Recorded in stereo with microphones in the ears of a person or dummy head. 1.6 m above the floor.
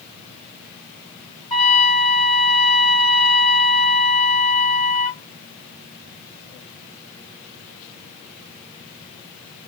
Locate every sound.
1.5 s a trumpet: 25° left (ahead or behind), 2.5 m